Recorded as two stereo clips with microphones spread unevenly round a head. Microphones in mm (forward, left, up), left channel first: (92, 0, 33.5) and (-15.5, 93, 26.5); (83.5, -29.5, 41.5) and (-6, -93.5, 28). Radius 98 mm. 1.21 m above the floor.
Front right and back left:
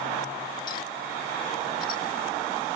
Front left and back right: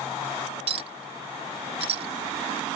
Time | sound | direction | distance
0.7 | a clink | 110° right | ?